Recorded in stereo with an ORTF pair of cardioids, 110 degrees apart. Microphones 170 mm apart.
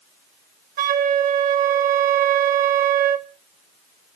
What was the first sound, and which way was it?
A flute, 55° right.